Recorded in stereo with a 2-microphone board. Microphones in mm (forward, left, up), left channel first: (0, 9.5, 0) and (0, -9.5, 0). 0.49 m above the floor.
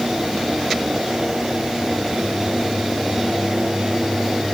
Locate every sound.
Only background noise.